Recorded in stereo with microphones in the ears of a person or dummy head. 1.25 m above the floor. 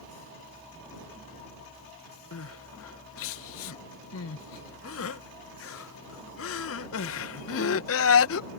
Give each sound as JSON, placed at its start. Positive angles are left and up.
{"t": 2.3, "sound": "crying", "side_deg": 65}